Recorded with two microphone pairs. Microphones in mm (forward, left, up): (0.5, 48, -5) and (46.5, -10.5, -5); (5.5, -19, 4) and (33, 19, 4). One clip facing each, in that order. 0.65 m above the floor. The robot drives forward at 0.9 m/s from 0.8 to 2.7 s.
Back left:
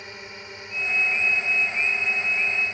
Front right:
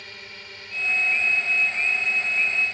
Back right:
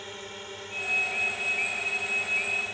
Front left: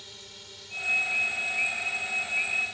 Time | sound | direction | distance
0.0 | a drone | 165° right | ?